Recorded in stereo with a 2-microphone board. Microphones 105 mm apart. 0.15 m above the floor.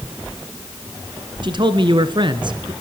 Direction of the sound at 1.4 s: 50° right (ahead or behind).